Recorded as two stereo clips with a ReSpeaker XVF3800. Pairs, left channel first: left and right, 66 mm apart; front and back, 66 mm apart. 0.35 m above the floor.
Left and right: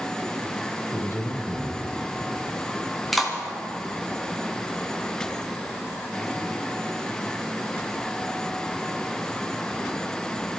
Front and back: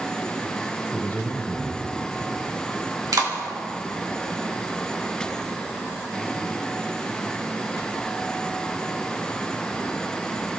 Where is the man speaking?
60° left, 1.3 m.